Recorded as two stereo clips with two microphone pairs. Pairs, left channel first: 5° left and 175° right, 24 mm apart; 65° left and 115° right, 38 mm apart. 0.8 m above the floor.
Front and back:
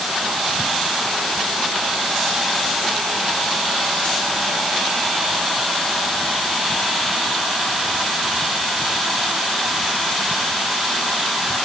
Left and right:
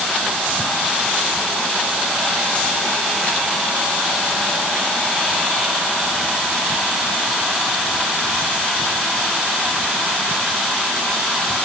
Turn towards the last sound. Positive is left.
No sound to turn to.